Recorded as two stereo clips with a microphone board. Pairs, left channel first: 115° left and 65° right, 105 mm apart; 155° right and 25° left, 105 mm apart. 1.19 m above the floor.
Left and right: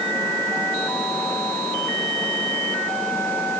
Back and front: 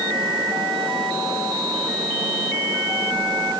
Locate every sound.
Only background noise.